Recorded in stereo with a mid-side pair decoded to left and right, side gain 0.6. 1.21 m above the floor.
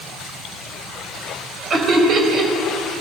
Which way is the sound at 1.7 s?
40° right.